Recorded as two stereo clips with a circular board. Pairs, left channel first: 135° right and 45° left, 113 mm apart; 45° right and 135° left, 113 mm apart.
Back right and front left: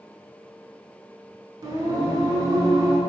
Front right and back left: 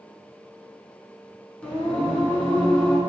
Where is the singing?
25° left, 0.6 m.